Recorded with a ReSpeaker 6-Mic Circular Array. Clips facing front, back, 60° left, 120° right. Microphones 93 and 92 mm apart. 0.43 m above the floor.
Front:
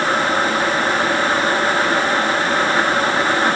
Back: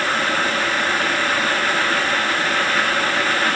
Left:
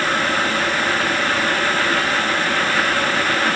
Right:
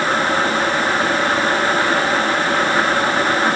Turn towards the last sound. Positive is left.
No sound to turn to.